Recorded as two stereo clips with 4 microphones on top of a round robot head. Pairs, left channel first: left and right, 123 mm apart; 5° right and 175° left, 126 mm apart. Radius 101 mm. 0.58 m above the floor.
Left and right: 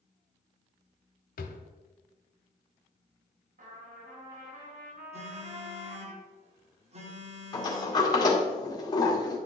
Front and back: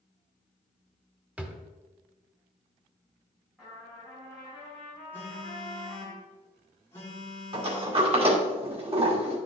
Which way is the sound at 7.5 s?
140° left.